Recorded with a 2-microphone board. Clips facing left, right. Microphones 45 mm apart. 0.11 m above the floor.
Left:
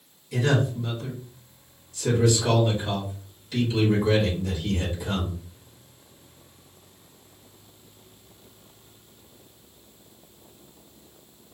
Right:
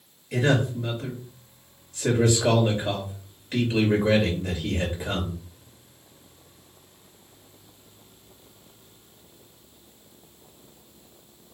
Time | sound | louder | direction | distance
0.3 | a man speaking | right 1 dB | 50° right (ahead or behind) | 2.5 m